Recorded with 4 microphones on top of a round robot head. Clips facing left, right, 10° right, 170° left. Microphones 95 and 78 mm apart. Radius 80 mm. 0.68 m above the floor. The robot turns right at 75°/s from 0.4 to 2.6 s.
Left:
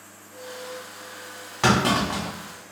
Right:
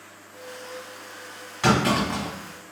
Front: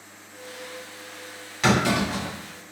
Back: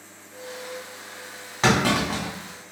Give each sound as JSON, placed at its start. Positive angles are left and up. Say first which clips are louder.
{"t": 1.6, "sound": "a clunk", "louder": "even, back 1 dB", "azimuth_deg": 125, "distance_m": 1.8}